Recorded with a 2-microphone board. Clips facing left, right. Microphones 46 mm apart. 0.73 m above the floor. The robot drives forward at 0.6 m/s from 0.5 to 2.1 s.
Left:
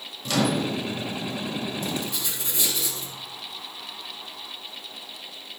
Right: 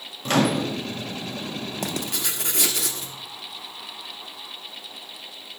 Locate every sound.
0.2 s a microwave: 40° right (ahead or behind), 0.7 m; by 0.8 s 35° right (ahead or behind), 0.8 m
1.8 s writing: 85° right, 0.6 m; by 3.1 s 70° right (ahead or behind), 0.6 m